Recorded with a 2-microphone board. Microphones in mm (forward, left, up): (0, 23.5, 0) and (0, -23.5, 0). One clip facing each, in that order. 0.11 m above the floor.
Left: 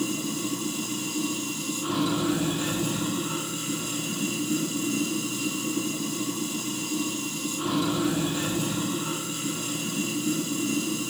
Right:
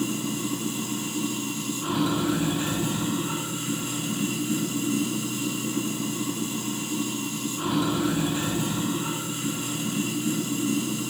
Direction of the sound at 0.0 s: 25° right (ahead or behind).